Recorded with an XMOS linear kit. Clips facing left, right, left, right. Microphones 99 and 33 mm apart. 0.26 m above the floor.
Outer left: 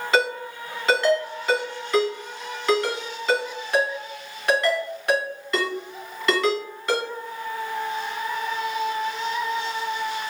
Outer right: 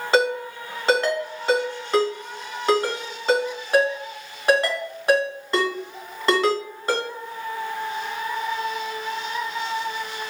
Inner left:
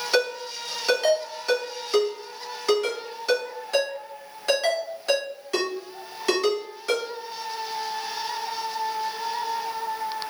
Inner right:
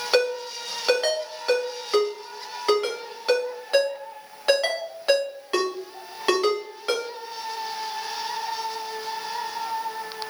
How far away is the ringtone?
About 1.5 m.